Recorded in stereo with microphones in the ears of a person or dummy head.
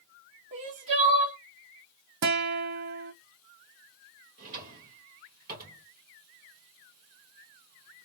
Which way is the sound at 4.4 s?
50° right (ahead or behind).